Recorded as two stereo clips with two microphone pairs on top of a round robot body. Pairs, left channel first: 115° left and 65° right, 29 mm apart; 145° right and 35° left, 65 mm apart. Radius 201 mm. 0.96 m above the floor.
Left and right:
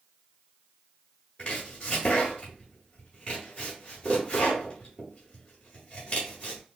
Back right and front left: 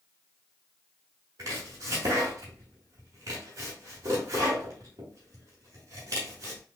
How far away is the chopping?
About 0.5 m.